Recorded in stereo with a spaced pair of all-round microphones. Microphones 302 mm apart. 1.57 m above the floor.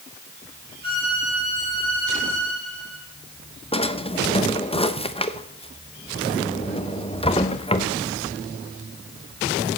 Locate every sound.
0.8 s a violin: 15° left (ahead or behind), 5 m
3.7 s a drawer: 20° left (ahead or behind), 0.8 m